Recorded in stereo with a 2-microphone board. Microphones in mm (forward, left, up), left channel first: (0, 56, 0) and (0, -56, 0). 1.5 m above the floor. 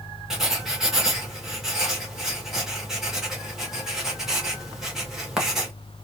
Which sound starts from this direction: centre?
Writing, at 0.3 s.